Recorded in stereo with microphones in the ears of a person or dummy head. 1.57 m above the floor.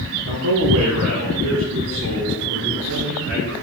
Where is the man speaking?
80° right, 2.5 m; by 3.5 s 70° right (ahead or behind), 6.5 m.